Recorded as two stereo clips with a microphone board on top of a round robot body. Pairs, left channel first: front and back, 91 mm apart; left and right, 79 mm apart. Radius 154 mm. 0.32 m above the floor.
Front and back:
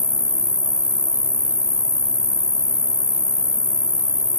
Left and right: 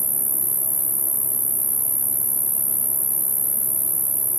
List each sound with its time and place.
0.0 s an insect: 60° right, 0.9 m